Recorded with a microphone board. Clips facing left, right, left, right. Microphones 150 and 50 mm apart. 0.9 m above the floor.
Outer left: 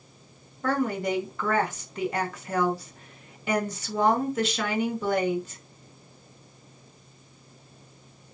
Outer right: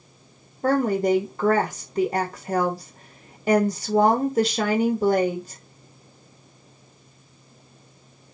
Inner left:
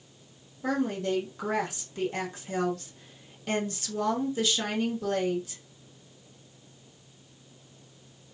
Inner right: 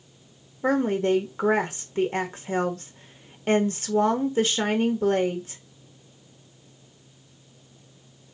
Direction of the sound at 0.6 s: 35° right (ahead or behind).